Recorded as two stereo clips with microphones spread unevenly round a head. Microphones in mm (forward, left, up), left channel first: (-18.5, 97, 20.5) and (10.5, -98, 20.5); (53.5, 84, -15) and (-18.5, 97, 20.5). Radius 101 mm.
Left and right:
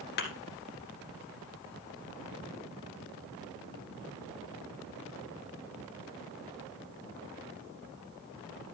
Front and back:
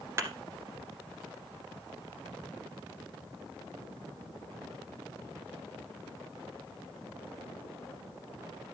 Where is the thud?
135° left, 1.9 m.